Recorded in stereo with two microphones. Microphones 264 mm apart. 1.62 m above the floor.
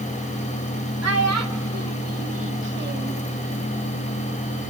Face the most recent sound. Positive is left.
turn(degrees=-25)  # may be behind; listen again after turning